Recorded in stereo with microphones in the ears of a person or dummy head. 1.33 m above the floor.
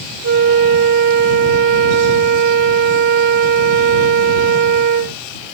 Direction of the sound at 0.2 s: 60° right (ahead or behind).